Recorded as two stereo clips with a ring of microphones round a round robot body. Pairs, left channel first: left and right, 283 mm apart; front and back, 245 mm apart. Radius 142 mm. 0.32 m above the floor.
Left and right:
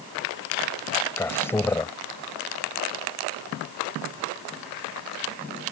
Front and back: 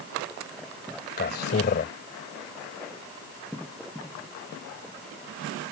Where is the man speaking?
15° left.